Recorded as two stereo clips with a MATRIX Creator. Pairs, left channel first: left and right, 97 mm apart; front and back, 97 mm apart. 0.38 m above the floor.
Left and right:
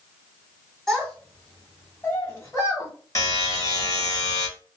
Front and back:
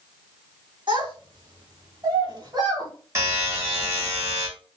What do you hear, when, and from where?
0.9 s a child speaking: 175° left, 1.7 m; by 2.9 s 140° left, 2.0 m
3.1 s a buzzer: 130° left, 1.3 m